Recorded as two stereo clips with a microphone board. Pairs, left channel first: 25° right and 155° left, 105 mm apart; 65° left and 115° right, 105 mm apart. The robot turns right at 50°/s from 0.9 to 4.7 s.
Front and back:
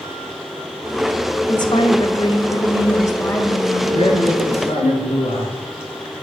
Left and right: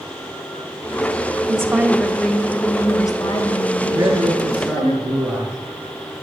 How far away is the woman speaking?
About 1.6 m.